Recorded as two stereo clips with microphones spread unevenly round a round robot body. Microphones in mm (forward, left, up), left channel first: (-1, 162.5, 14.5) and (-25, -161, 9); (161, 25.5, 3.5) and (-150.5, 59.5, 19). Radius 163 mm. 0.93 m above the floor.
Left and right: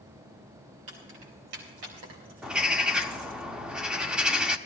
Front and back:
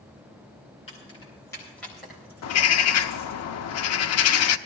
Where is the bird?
5° right, 0.6 m.